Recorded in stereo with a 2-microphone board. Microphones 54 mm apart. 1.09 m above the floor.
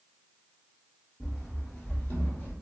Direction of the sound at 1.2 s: Centre (ahead or behind).